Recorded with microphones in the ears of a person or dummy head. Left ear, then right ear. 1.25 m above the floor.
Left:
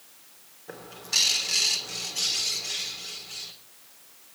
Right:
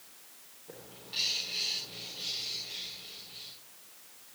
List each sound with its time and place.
0.7 s a bird: 65° left (ahead or behind), 2.5 m